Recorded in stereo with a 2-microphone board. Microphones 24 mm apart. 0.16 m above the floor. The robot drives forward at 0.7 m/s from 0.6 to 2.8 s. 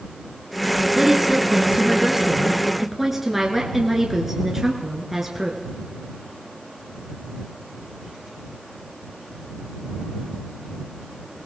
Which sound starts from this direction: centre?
A woman speaking, at 0.9 s.